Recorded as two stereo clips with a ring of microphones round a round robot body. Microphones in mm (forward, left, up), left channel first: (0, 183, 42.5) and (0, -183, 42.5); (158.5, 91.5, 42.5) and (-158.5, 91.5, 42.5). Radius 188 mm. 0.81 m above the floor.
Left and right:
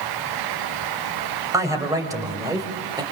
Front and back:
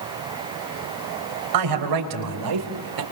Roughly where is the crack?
I don't hear a crack.